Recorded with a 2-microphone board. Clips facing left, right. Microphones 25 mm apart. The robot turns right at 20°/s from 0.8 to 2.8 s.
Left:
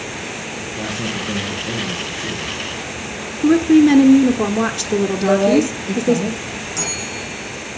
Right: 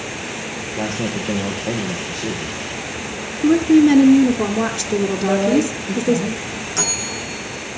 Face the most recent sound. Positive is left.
turn(degrees=-25)  # may be behind; listen again after turning